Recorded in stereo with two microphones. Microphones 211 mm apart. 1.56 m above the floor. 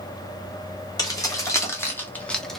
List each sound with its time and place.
1.0 s keys jangling: 15° left (ahead or behind), 1.6 m; by 2.6 s centre (ahead or behind), 0.8 m